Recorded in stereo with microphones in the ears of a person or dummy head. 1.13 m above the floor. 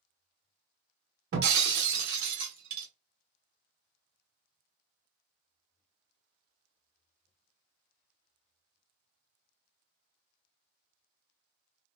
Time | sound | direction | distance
1.3 | breaking glass | 55° right (ahead or behind) | 1.3 m